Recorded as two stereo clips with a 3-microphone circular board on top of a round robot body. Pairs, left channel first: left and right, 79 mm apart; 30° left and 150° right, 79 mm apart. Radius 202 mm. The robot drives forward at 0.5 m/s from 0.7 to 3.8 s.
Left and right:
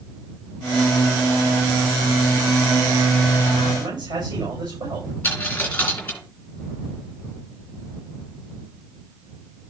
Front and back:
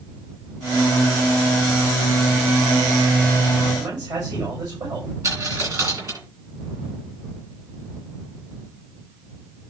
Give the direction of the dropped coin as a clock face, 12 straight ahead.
7 o'clock.